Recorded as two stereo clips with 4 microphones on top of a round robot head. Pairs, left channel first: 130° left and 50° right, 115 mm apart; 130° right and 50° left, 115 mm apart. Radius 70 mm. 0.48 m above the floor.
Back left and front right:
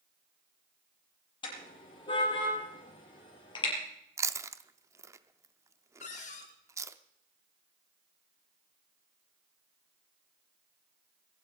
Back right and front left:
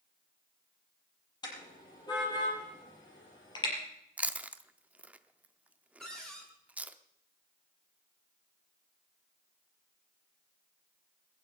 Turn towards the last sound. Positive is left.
turn(degrees=150)